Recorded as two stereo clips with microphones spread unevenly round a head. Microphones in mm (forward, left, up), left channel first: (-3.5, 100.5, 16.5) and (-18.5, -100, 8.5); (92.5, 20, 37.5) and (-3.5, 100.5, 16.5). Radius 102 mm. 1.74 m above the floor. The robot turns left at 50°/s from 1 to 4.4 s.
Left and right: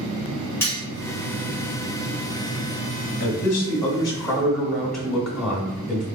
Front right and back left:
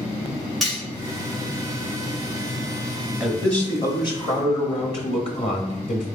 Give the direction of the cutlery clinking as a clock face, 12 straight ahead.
11 o'clock.